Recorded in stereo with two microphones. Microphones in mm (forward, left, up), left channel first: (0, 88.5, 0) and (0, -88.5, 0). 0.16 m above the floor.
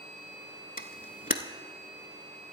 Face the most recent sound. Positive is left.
turn(degrees=50)  # may be behind; listen again after turning